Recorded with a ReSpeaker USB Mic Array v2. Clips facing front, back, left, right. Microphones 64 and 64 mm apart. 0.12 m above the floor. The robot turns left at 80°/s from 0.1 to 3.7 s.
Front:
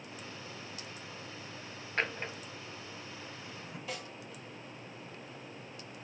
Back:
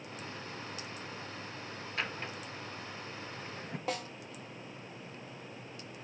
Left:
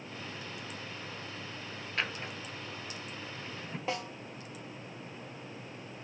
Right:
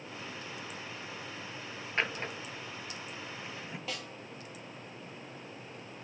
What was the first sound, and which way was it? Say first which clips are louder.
A drawer: front 4 dB, right 3 dB; 30° right.